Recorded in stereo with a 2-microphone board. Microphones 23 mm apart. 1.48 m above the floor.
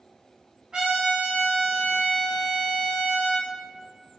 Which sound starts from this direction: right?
A trumpet, at 0.7 s.